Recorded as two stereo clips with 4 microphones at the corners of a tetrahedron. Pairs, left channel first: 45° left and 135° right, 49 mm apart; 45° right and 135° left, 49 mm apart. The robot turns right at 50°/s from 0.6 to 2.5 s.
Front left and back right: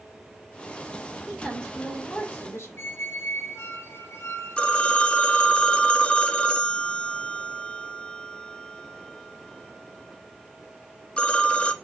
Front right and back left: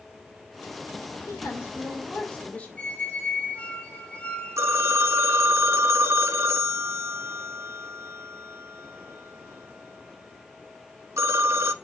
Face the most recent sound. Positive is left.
turn(degrees=115)